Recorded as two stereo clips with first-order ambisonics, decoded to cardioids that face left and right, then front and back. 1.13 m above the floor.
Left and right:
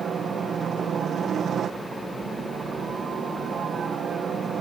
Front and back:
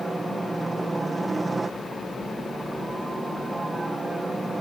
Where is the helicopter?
105° right.